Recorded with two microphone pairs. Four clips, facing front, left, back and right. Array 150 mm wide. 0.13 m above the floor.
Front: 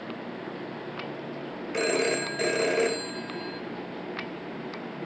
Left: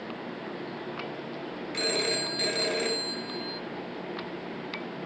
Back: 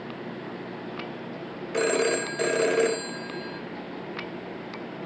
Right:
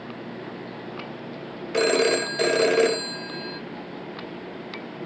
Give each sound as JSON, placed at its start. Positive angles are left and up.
{"t": 1.7, "sound": "a phone ringing", "azimuth_deg": -100, "distance_m": 1.0}